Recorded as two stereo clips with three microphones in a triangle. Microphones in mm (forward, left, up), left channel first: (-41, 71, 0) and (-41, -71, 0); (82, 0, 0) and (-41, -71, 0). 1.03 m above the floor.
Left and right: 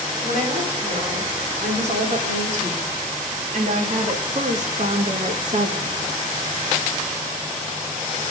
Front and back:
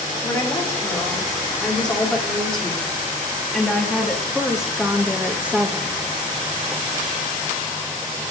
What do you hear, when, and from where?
0.2 s a woman speaking: 50° right, 4 m; by 6.0 s 80° right, 1.1 m